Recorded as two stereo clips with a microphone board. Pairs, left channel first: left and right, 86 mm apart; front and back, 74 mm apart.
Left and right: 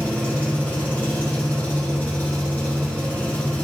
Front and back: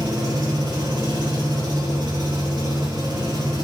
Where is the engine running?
160° left, 4.5 m.